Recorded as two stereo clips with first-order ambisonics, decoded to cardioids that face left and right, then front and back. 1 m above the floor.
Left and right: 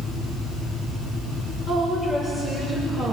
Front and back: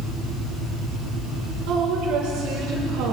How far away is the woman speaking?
About 3 m.